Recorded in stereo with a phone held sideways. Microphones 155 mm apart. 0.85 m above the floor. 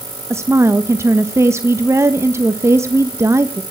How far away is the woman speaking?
About 1.0 m.